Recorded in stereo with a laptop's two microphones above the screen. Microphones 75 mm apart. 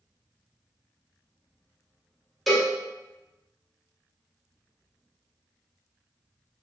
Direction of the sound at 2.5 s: Centre (ahead or behind).